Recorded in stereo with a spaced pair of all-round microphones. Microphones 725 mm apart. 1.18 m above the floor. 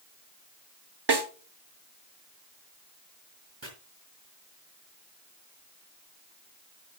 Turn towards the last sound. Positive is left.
turn(degrees=-35)  # may be behind; listen again after turning